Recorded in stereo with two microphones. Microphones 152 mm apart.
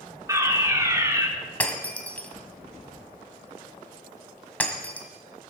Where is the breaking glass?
10° left (ahead or behind), 1.6 m.